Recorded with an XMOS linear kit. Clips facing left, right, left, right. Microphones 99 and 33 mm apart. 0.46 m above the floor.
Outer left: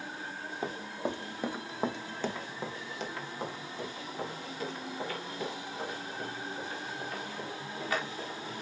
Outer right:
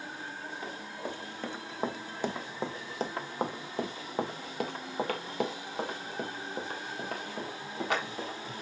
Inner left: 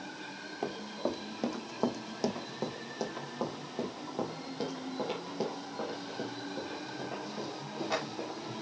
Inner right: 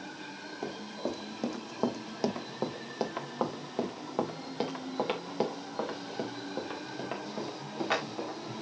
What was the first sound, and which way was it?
Running footsteps, 30° left (ahead or behind).